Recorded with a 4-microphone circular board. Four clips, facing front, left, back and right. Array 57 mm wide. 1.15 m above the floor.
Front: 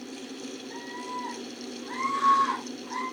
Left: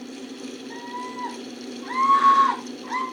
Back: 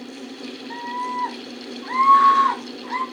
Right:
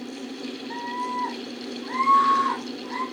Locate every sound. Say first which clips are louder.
0.7 s a scream: right 6 dB, back 12 dB; 155° right, 2 m; by 3.0 s 150° left, 3.5 m